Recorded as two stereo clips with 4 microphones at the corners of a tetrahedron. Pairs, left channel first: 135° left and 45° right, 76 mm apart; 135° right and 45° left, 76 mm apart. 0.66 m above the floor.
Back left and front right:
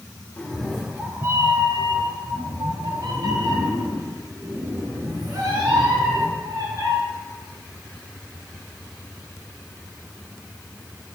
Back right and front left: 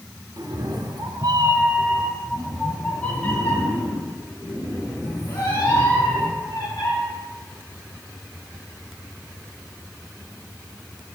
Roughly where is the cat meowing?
Ahead left.